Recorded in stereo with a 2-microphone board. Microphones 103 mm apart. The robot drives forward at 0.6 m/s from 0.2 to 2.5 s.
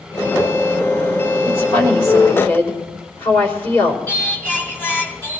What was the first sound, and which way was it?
A woman speaking, 30° left (ahead or behind).